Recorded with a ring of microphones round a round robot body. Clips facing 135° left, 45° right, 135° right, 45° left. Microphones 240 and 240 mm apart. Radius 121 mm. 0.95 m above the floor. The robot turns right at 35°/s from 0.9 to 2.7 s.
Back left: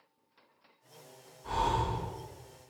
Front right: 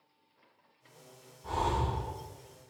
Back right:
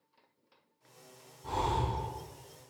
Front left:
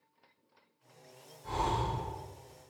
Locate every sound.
1.4 s breathing: 115° right, 1.8 m; by 2.1 s 90° right, 1.8 m